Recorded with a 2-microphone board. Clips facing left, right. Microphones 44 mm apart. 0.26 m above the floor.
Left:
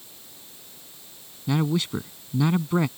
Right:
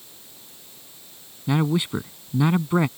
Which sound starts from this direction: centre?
A man speaking, at 1.5 s.